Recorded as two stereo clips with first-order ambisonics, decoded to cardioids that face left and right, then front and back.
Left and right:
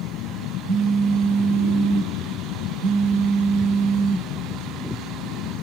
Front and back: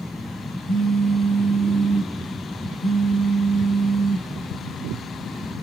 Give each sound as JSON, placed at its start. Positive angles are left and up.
{"t": 0.7, "sound": "a phone buzzing", "azimuth_deg": -105, "distance_m": 1.4}